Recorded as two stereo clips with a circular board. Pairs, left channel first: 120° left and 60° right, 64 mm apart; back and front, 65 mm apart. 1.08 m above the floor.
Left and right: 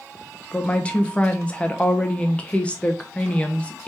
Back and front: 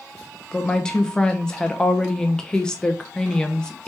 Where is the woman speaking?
135° left, 0.6 m.